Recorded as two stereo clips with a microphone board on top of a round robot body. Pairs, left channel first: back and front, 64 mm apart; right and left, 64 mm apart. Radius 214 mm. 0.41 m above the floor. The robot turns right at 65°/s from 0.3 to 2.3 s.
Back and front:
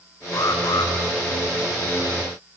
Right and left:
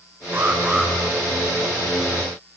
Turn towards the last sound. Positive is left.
turn(degrees=-90)